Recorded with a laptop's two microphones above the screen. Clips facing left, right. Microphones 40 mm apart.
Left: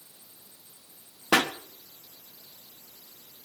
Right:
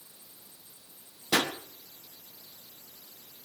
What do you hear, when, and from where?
1.3 s a pop: 70° left (ahead or behind), 1.5 m